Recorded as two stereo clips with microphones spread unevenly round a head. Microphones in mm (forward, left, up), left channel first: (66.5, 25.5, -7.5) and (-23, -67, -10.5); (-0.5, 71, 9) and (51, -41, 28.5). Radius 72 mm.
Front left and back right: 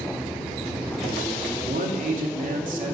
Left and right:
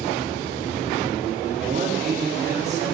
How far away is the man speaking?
About 3 m.